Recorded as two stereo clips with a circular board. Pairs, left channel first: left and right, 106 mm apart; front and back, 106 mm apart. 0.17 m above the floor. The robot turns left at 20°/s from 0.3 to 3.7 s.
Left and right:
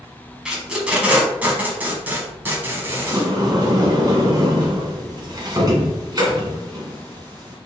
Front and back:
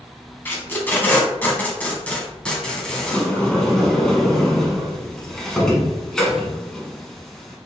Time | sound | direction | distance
0.5 | tape being pulled | 20° right | 1.3 m
3.1 | a sliding door | 70° right | 1.2 m